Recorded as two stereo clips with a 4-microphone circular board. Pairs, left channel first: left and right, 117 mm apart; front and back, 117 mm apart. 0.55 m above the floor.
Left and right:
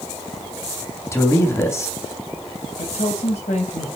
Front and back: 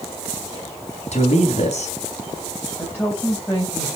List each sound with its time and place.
1.1 s a man speaking: 25° left, 3 m
2.8 s a woman speaking: 75° left, 3 m